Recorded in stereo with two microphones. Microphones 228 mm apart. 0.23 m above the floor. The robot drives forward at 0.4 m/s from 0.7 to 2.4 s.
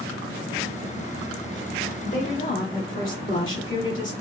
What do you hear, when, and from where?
2.0 s a woman speaking: 55° left (ahead or behind), 2.0 m